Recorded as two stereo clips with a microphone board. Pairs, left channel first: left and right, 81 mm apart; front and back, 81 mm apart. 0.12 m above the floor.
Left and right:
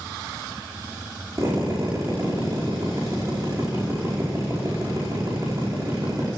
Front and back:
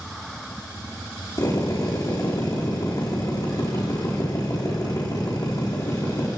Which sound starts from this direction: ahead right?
A drill, at 1.4 s.